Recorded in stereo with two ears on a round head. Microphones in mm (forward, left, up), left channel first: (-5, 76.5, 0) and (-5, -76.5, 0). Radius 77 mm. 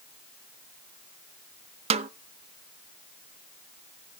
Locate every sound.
1.9 s a snare drum: 35° right (ahead or behind), 0.6 m